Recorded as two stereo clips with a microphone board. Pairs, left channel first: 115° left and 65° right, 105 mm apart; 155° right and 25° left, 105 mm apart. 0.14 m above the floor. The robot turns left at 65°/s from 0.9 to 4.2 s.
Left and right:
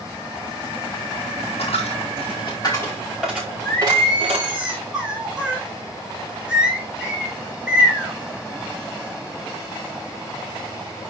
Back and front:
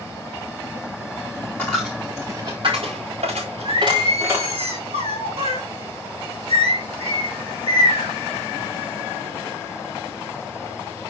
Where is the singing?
50° left, 3.5 m; by 8.1 s 10° left, 3.5 m.